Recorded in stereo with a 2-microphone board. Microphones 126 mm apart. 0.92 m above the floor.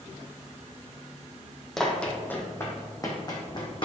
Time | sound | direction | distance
1.8 | running footsteps | 5° left (ahead or behind) | 1.5 m